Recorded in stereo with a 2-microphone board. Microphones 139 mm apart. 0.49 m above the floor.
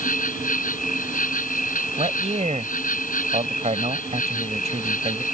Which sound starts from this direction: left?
An insect, at 0.0 s.